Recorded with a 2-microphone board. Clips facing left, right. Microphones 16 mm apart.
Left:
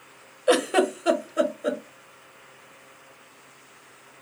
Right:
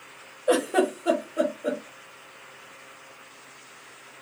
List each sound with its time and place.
0.5 s a giggle: 60° left (ahead or behind), 0.6 m